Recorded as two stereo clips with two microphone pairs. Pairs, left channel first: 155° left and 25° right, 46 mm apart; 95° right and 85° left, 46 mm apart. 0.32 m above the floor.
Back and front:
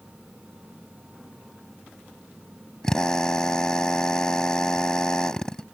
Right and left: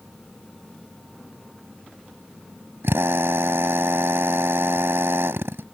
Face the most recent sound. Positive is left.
turn(degrees=75)